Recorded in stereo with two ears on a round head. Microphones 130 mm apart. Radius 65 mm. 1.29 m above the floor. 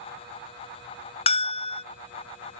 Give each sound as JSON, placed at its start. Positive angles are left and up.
{"t": 1.3, "sound": "a bell", "side_deg": 40}